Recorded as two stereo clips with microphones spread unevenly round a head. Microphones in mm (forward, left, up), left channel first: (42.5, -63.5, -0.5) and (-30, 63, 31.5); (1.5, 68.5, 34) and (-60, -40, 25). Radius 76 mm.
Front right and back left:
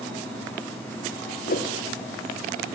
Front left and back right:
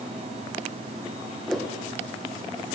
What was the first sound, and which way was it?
A whoosh, 30° right.